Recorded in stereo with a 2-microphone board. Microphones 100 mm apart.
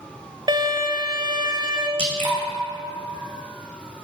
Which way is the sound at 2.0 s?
60° right (ahead or behind).